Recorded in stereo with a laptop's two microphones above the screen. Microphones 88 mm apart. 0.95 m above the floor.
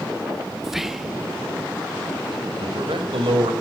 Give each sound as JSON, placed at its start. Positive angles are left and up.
{"t": 0.6, "sound": "whispering", "side_deg": -5, "distance_m": 1.0}
{"t": 2.6, "sound": "a man speaking", "side_deg": -85, "distance_m": 4.0}